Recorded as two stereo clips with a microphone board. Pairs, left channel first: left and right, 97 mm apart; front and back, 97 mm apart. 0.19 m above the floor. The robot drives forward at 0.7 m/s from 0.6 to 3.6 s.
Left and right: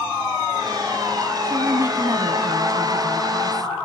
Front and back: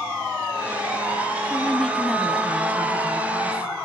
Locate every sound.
1.4 s a woman speaking: 60° right, 1.5 m; by 3.7 s 145° right, 1.8 m